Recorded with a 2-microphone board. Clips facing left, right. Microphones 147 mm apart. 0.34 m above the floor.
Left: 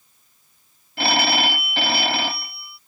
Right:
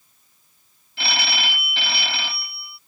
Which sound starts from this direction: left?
A phone ringing, at 1.0 s.